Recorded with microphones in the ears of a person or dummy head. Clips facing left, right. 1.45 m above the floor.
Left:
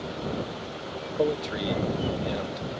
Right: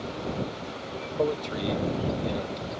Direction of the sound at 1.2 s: 15° left (ahead or behind).